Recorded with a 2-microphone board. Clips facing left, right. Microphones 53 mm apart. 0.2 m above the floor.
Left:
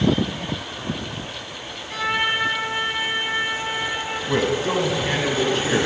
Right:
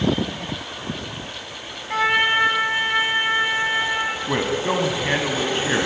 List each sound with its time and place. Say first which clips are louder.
1.9 s a trumpet: right 4 dB; 35° right (ahead or behind), 0.9 m
4.3 s a man speaking: left 4 dB; 20° right (ahead or behind), 1.1 m